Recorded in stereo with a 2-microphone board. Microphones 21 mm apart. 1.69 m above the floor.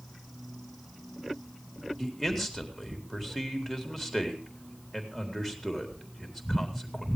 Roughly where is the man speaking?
Centre.